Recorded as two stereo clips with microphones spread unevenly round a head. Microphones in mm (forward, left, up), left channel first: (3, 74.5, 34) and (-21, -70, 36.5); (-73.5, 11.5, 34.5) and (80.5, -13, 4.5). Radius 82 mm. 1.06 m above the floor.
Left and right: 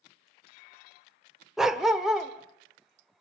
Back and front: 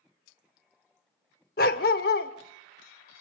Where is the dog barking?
175° left, 1.2 m.